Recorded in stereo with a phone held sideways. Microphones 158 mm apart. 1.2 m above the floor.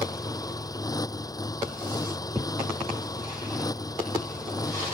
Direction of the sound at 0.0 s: 25° left (ahead or behind).